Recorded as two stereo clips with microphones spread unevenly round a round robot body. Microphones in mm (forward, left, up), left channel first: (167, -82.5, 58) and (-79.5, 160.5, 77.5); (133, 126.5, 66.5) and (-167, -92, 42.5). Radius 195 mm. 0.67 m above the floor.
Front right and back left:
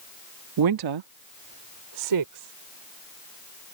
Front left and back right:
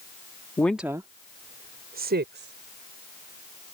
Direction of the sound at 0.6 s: 120° left.